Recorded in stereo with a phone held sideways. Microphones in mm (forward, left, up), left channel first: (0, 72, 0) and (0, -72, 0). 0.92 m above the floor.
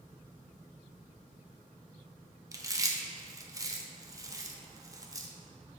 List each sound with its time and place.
2.5 s chewing: 25° right (ahead or behind), 0.6 m